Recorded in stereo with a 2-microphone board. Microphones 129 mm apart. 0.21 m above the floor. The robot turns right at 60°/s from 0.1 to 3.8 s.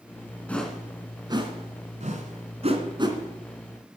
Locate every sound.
0.5 s a whoosh: 10° left (ahead or behind), 2.0 m; by 3.2 s 25° right (ahead or behind), 2.0 m